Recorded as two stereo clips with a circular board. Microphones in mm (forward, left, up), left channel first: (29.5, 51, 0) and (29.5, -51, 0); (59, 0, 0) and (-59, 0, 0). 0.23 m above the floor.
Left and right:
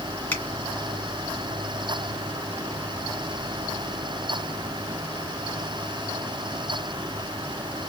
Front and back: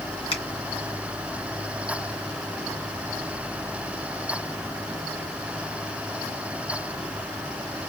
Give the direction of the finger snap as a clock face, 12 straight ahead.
11 o'clock.